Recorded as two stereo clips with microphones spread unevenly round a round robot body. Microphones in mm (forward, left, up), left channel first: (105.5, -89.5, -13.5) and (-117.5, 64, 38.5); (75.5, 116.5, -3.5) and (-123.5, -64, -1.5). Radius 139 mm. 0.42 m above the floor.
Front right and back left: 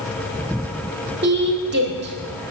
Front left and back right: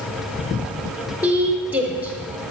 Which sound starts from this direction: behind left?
A woman speaking, at 1.2 s.